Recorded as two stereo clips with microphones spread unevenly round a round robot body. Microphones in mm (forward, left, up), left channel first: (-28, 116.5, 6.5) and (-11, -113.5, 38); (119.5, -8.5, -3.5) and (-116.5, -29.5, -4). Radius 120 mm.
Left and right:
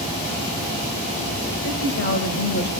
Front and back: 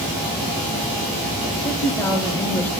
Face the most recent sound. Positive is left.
turn(degrees=85)